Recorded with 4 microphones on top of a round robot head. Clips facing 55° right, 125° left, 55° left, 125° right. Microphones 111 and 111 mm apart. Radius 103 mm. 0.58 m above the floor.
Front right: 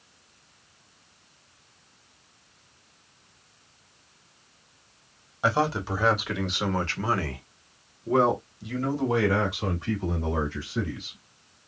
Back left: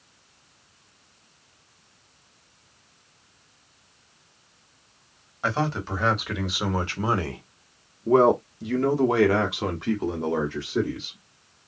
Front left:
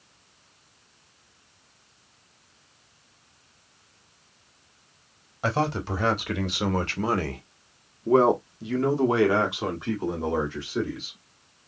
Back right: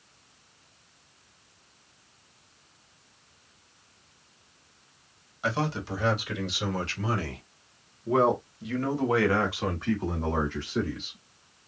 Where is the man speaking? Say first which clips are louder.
Front right 2 dB, front left 4 dB; 20° left, 1.6 m; by 11.2 s 135° left, 2.5 m.